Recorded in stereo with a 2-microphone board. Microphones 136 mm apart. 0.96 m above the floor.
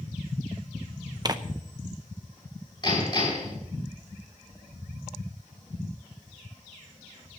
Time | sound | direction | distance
1.2 | tearing paper | 30° right (ahead or behind) | 0.6 m
2.8 | hammering | 30° left (ahead or behind) | 6.5 m